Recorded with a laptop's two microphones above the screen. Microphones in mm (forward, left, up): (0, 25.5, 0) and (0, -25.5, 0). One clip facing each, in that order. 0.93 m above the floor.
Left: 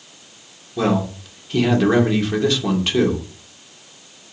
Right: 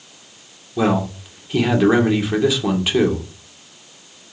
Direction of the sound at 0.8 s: 10° right (ahead or behind).